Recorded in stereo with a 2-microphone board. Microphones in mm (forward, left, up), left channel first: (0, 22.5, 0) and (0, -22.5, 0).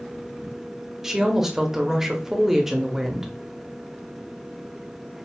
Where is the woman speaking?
10° right (ahead or behind), 0.8 m.